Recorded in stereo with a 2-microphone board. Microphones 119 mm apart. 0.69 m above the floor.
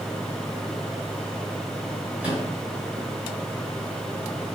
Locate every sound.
2.2 s a microwave: 15° right (ahead or behind), 1.9 m